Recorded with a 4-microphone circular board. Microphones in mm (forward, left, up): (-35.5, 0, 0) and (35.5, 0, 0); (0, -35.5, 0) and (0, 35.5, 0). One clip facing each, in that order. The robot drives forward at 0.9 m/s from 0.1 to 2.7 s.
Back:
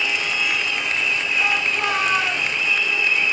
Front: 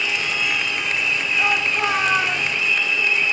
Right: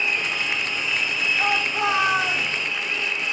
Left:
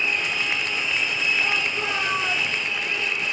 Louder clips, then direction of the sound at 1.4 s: Front 2 dB, right 3 dB; 85° right.